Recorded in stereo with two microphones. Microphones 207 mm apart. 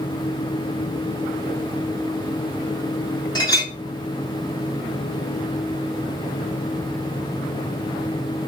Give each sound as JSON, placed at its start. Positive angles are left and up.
{"t": 3.4, "sound": "a clink", "side_deg": 20, "distance_m": 3.0}